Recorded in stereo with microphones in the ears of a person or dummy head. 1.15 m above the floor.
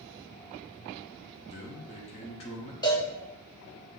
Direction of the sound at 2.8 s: 25° left (ahead or behind).